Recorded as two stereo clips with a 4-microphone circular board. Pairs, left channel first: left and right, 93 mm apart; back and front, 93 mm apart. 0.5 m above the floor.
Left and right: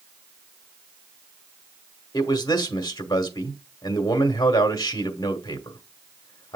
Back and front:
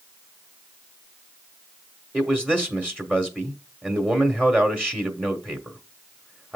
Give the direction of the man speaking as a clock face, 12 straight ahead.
10 o'clock.